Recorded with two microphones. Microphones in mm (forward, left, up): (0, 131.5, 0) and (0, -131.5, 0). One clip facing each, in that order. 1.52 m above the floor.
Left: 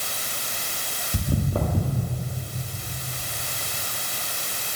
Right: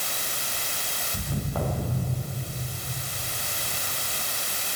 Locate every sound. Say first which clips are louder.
1.1 s footsteps: left 5 dB; 40° left (ahead or behind), 2 m